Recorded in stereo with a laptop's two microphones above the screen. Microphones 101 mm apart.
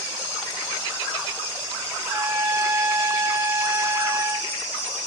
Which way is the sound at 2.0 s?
25° right (ahead or behind).